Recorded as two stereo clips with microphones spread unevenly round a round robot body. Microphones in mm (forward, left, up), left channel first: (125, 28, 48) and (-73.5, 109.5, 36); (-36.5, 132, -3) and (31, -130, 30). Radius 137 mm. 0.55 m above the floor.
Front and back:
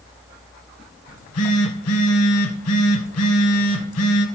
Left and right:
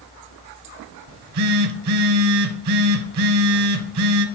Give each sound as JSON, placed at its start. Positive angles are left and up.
{"t": 1.1, "sound": "a phone buzzing", "azimuth_deg": -55, "distance_m": 0.8}